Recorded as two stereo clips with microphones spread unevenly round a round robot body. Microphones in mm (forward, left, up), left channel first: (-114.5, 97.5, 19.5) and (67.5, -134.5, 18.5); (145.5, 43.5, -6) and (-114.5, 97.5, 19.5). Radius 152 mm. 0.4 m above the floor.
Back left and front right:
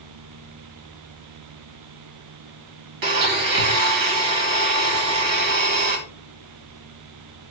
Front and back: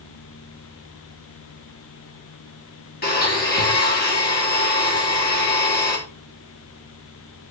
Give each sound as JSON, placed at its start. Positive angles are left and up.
{"t": 3.0, "sound": "a blender", "azimuth_deg": -70, "distance_m": 2.0}